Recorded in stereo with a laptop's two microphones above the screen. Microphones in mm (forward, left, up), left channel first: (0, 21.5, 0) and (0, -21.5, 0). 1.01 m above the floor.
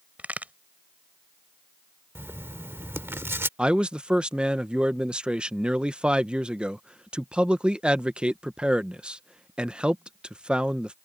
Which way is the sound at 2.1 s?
70° right (ahead or behind).